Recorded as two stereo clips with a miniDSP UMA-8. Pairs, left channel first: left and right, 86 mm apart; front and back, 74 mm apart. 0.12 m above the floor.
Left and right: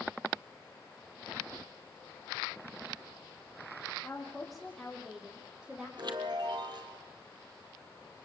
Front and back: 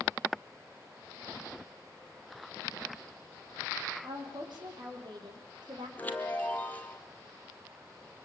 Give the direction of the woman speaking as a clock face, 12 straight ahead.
6 o'clock.